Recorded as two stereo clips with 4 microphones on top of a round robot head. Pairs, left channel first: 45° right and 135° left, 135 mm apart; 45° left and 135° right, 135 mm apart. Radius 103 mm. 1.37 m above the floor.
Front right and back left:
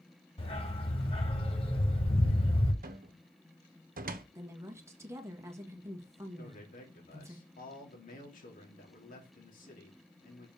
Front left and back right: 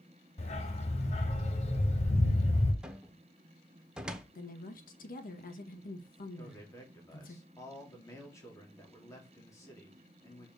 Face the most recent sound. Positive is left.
turn(degrees=-25)